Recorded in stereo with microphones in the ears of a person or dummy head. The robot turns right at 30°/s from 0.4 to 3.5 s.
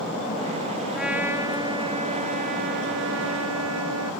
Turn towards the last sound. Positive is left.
turn(degrees=-105)